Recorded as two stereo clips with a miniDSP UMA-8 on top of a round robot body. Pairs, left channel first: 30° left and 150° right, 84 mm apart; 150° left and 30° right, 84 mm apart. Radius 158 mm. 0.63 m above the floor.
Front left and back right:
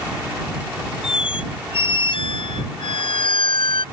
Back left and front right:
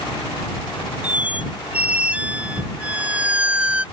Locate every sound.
1.0 s a squeak: 45° left